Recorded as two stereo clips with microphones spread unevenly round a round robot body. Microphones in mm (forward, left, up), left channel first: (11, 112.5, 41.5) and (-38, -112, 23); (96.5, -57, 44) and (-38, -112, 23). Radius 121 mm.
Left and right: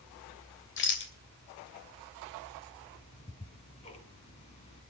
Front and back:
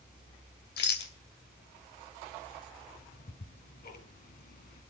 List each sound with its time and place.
0.8 s a rattle: 30° left, 2.5 m
2.9 s ticking: 15° left, 2 m